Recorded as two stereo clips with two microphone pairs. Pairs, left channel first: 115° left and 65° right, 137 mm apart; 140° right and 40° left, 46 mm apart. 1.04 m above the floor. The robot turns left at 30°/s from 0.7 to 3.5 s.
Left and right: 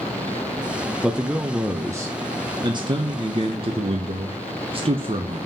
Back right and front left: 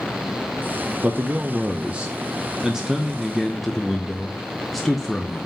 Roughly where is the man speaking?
Ahead.